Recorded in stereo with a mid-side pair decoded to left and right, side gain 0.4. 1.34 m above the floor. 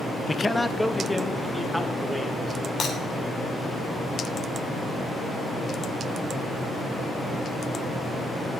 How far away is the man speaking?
About 0.9 m.